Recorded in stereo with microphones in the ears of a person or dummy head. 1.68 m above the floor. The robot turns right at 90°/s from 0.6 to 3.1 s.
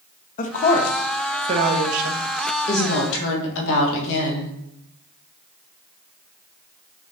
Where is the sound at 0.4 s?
45° left (ahead or behind), 0.9 m; by 2.2 s 80° right, 0.9 m.